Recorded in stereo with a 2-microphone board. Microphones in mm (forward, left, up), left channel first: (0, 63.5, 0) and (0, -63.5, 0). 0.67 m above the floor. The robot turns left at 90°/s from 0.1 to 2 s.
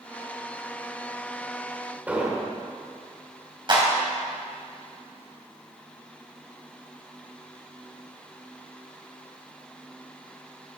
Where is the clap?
40° right (ahead or behind), 2.5 m.